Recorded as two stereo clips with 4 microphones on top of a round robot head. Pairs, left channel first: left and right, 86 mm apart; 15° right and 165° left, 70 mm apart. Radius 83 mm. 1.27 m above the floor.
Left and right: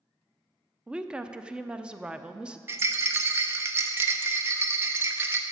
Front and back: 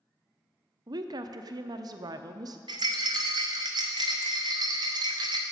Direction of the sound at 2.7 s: 150° right.